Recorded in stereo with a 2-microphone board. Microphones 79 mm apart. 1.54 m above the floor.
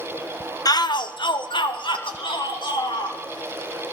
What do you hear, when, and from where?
0.7 s a shout: 50° left (ahead or behind), 1.1 m; by 3.2 s 70° left (ahead or behind), 4 m